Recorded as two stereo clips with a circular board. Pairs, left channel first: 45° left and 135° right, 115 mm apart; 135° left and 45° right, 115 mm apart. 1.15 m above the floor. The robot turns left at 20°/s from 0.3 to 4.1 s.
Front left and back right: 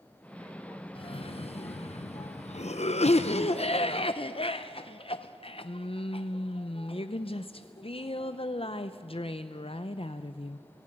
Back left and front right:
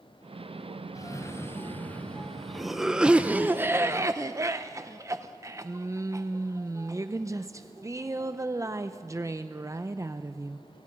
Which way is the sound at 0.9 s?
80° left.